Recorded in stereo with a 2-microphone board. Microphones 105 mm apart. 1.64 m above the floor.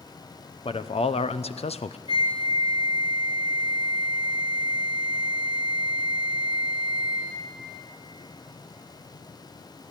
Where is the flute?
65° left (ahead or behind), 2 m.